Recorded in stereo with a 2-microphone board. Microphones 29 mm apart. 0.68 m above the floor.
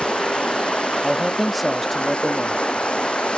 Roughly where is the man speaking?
Centre.